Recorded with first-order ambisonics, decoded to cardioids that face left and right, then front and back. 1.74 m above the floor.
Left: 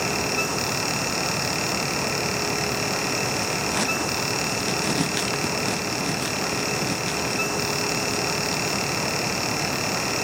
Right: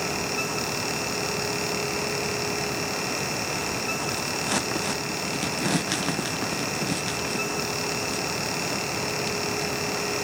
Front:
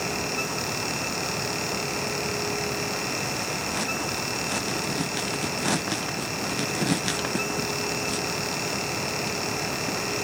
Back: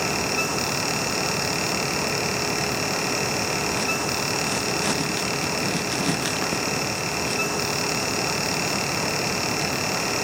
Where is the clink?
No clink in this recording.